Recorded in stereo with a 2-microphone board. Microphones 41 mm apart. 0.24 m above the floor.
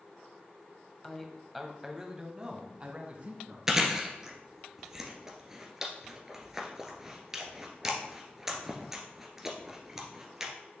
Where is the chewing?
15° right (ahead or behind), 1.4 m.